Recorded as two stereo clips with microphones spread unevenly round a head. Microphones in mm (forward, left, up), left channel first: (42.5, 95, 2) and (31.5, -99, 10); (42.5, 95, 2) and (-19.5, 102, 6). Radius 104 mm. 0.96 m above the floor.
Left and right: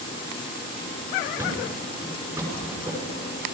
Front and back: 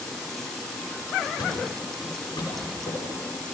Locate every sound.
1.4 s a thud: 15° right, 6.5 m